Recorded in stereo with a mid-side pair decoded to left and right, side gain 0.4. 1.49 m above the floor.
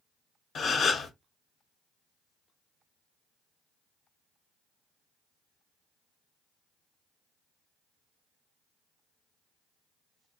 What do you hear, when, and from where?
0.6 s a gasp: 60° left, 0.7 m